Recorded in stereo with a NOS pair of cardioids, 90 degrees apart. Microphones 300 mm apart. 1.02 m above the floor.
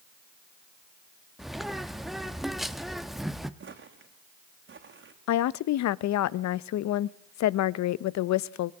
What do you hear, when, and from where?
1.4 s a bird: straight ahead, 1.2 m
3.6 s footsteps: 45° right, 3.5 m
5.3 s a woman speaking: 65° left, 0.7 m